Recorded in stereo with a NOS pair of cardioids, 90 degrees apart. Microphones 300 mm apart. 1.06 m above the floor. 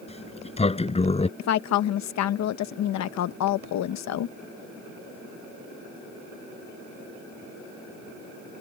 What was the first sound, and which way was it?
A sliding door, 20° left.